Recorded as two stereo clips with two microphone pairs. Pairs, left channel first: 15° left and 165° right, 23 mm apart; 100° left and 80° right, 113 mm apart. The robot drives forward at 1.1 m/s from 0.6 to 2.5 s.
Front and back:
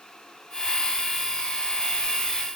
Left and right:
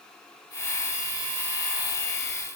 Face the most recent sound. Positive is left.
No sound to turn to.